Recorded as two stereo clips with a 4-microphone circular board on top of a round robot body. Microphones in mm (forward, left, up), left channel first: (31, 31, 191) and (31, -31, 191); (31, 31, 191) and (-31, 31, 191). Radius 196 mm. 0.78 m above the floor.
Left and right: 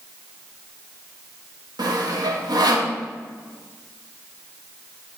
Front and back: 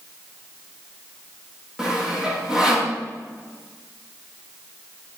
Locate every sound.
1.8 s sawing: 100° right, 1.4 m